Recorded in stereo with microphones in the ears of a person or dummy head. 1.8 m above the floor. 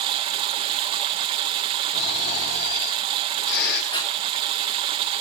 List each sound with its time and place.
0.0 s running water: 25° right (ahead or behind), 1.3 m
1.9 s snoring: 65° left (ahead or behind), 6 m
3.9 s breathing: 30° left (ahead or behind), 3 m